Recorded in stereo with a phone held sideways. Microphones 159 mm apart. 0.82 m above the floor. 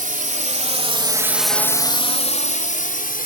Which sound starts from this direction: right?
A drone, at 0.0 s.